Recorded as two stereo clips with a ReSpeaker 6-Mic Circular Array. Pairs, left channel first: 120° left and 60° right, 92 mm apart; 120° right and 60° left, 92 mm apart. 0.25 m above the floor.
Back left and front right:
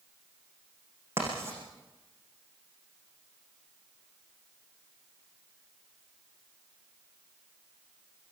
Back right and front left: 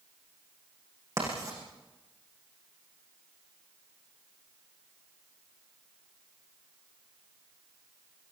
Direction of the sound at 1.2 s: 5° left.